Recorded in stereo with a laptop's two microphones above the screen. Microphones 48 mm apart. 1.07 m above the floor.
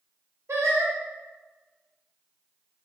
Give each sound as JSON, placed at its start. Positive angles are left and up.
{"t": 0.5, "sound": "singing", "side_deg": -80, "distance_m": 1.2}